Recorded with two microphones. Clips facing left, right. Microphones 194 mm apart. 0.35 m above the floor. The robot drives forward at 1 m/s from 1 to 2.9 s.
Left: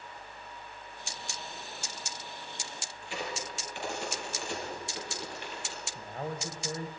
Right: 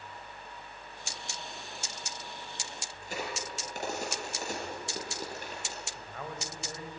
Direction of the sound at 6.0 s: 35° left (ahead or behind).